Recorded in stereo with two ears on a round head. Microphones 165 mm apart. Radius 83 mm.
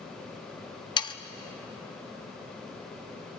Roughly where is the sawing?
Left.